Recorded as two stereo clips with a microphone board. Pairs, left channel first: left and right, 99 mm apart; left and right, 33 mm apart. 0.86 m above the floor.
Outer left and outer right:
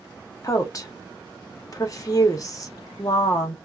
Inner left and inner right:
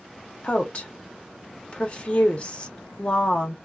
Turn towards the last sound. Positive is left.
turn(degrees=35)  # may be behind; listen again after turning